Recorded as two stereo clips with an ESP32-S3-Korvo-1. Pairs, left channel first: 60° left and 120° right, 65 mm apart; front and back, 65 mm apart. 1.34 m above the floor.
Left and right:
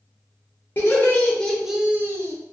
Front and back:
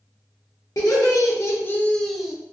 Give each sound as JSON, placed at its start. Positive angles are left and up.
{"t": 0.8, "sound": "laughter", "azimuth_deg": 10, "distance_m": 0.8}